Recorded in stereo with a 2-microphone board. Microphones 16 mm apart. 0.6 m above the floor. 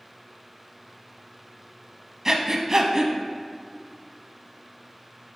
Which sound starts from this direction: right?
Breathing, at 2.2 s.